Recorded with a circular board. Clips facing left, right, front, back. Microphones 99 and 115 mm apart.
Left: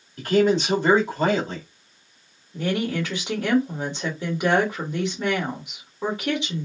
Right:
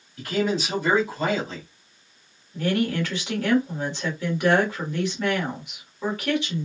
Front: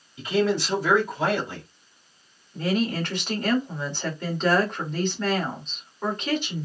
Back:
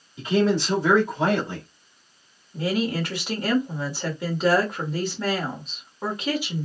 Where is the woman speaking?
115° left, 1.4 m.